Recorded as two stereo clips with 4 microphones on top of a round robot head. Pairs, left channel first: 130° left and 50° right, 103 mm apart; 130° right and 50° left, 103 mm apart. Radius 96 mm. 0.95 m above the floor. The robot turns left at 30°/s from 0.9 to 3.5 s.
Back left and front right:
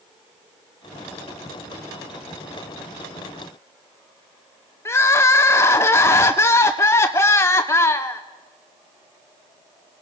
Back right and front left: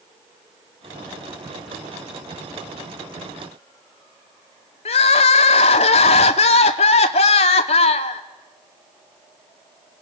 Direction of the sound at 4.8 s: 160° right.